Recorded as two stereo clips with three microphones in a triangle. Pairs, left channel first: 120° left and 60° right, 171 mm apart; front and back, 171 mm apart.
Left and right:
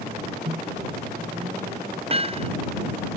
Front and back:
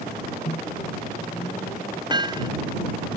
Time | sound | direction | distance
0.5 | a microwave | 35° right | ?
2.1 | hammering | 115° right | ?